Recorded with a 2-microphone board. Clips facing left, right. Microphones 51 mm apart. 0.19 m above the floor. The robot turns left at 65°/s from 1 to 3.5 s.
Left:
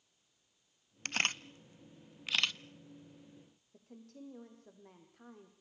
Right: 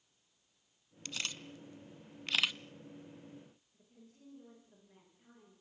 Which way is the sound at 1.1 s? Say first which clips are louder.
Left 8 dB; 55° left (ahead or behind).